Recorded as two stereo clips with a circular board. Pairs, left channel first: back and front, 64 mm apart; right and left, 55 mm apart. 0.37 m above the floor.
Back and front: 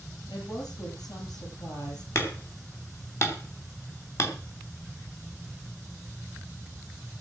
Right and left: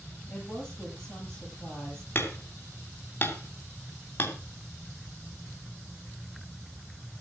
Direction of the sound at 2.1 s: 140° right.